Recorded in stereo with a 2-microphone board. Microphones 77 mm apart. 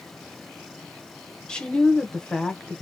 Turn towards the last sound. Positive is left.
turn(degrees=10)  # may be behind; listen again after turning